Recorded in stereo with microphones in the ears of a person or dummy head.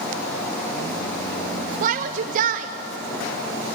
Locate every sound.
1.8 s a shout: 45° right (ahead or behind), 0.7 m